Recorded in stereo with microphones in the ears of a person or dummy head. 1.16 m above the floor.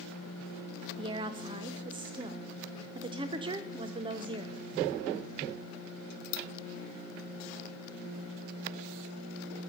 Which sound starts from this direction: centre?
A woman speaking, at 1.0 s.